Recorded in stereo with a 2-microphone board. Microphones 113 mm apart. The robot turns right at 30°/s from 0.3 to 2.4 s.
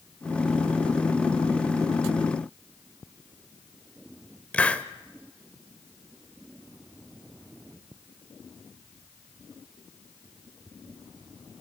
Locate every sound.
4.5 s a hiss: 10° left (ahead or behind), 0.8 m